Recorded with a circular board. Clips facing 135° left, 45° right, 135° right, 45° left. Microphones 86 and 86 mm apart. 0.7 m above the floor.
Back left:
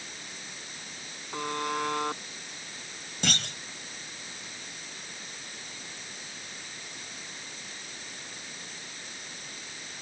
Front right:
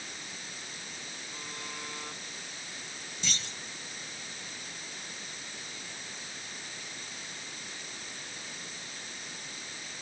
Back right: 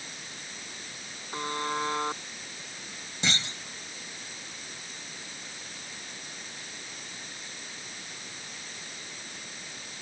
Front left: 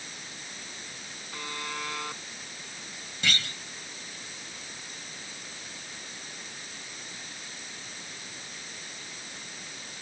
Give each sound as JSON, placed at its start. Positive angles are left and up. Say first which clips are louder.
{"t": 1.3, "sound": "a buzzer", "louder": "back left 15 dB, back right 6 dB", "azimuth_deg": 165}
{"t": 3.2, "sound": "a clunk", "louder": "back left 9 dB, even", "azimuth_deg": 160}